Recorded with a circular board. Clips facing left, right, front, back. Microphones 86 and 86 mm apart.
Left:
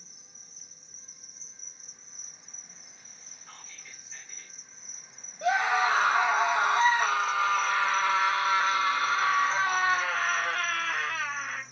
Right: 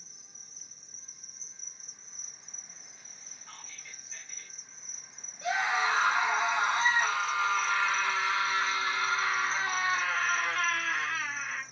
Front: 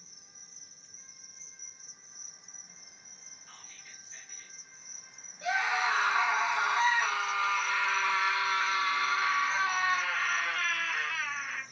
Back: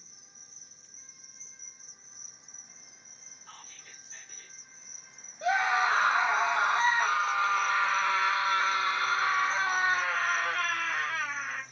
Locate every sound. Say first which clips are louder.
0.0 s an insect: left 1 dB, even; straight ahead, 1.5 m
3.5 s whispering: even, back 4 dB; 175° left, 0.8 m
5.4 s a scream: left 4 dB, back 4 dB; 120° left, 0.8 m